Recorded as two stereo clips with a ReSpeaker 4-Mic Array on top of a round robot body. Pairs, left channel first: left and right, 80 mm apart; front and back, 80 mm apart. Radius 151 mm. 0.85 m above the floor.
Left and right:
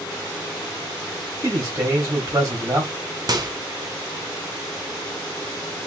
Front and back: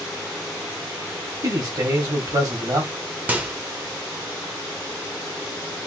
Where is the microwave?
115° right, 1.0 m.